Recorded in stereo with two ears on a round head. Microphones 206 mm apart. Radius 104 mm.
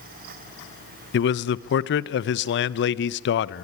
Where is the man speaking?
50° left (ahead or behind), 0.7 m.